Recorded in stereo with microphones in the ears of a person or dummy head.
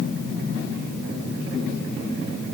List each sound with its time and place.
Only background noise.